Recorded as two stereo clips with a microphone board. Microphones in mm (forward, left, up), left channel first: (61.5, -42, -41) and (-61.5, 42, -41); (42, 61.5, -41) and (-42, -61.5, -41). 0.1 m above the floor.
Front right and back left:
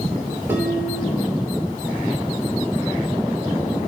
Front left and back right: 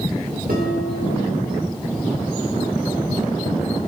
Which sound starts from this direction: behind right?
Dishes clattering, at 0.5 s.